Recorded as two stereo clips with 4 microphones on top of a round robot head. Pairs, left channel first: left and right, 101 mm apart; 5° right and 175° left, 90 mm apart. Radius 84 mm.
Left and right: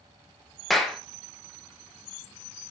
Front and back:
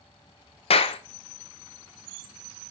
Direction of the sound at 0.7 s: Straight ahead.